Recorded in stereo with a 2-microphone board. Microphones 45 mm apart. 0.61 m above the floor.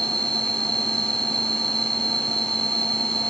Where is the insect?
5° left (ahead or behind).